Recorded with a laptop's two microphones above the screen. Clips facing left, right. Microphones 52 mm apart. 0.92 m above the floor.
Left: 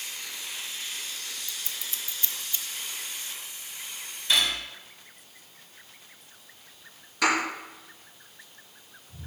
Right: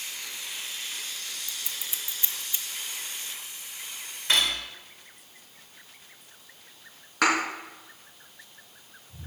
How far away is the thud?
About 3.5 m.